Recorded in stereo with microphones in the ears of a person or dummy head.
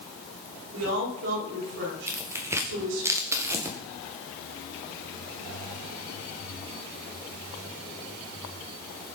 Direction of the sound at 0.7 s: 70° right (ahead or behind).